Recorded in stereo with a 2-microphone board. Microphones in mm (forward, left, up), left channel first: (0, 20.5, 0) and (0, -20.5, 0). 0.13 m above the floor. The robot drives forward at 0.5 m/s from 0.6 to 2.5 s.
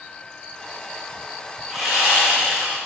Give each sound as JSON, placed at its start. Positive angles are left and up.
{"t": 1.7, "sound": "sawing", "side_deg": -5, "distance_m": 5.5}